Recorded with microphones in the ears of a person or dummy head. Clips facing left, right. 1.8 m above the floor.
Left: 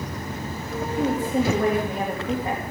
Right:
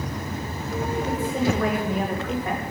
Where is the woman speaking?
20° left (ahead or behind), 2.5 m.